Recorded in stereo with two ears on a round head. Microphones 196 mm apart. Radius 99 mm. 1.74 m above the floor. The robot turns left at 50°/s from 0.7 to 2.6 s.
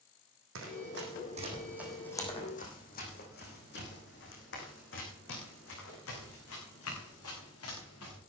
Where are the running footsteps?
65° right (ahead or behind), 4.5 m; by 8.2 s 80° left, 8 m.